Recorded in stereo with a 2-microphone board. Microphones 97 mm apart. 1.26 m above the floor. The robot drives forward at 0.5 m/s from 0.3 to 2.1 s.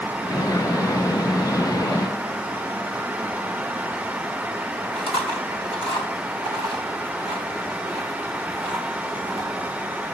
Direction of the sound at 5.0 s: 65° left (ahead or behind).